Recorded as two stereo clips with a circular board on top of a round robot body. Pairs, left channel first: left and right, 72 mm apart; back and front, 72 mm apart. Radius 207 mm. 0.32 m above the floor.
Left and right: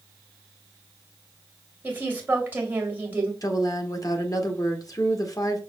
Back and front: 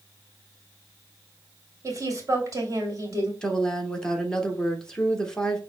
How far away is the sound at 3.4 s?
About 1.3 m.